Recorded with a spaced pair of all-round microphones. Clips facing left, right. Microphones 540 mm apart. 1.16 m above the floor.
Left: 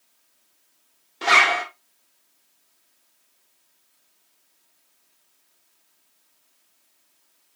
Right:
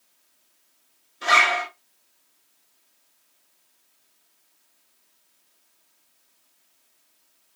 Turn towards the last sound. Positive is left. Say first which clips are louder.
# left 2 dB
turn(degrees=80)